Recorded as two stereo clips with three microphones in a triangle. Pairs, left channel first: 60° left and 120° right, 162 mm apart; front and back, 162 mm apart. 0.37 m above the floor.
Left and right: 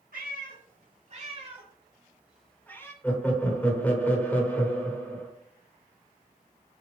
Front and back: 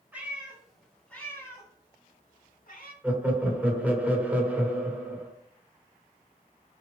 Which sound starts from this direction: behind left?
Laughter, at 3.0 s.